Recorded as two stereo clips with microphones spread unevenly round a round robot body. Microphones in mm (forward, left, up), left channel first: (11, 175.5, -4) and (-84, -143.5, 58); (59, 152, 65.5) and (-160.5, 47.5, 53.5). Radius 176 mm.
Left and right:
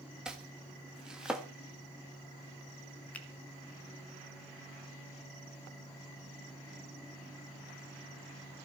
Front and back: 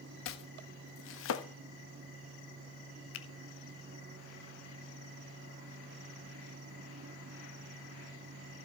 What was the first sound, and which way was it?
Chopping, 15° right.